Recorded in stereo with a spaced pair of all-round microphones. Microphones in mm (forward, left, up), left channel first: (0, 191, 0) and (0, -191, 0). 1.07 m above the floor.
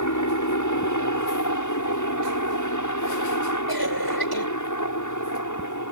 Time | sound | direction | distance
0.0 | a helicopter | 50° left (ahead or behind) | ?
3.7 | a cough | 70° left (ahead or behind) | ?